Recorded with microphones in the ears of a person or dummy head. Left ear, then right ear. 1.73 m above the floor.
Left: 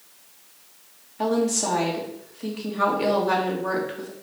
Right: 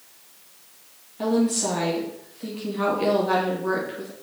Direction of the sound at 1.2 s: 20° left (ahead or behind).